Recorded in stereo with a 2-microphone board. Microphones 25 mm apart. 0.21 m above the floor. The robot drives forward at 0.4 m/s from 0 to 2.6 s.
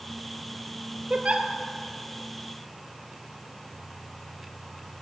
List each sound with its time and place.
1.1 s a giggle: 50° right (ahead or behind), 1.3 m; by 1.5 s 55° right (ahead or behind), 1.2 m